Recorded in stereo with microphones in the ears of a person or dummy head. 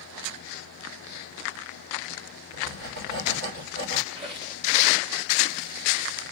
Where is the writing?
65° right (ahead or behind), 2 m.